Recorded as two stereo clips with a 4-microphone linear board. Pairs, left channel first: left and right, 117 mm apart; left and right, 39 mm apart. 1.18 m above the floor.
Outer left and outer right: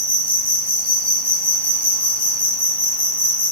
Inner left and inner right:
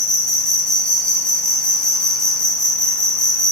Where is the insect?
15° left (ahead or behind), 0.7 m.